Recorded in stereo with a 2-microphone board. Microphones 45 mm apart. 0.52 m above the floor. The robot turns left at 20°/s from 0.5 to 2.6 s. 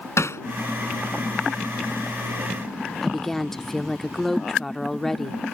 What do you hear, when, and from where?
0.2 s hammering: 85° left
3.0 s a woman speaking: 10° left (ahead or behind)